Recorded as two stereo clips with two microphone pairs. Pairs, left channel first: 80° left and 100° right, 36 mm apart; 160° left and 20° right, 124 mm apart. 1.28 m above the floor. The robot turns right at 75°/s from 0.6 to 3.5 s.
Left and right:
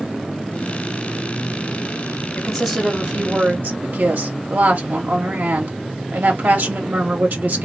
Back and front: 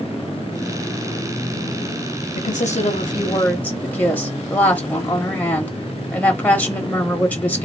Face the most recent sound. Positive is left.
turn(degrees=-120)